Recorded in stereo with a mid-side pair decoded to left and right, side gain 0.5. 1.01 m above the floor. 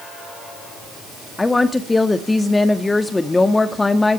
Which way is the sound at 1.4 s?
15° left.